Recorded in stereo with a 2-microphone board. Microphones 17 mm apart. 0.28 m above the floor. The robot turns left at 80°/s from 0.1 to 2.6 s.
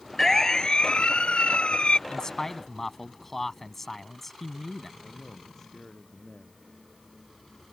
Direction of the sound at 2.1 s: 55° left.